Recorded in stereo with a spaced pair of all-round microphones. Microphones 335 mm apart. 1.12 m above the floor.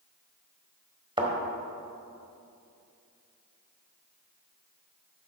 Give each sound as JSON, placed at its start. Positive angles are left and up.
{"t": 1.2, "sound": "a thud", "side_deg": -15, "distance_m": 1.4}